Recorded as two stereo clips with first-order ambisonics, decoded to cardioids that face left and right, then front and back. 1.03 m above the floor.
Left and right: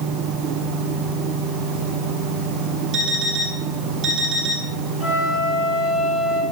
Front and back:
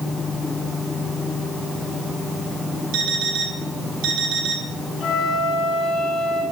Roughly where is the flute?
Left.